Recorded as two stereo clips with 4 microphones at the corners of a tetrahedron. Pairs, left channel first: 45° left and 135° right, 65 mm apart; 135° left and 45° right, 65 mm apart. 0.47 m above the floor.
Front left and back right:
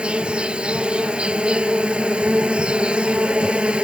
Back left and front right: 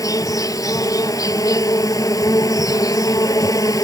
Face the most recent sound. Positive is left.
turn(degrees=150)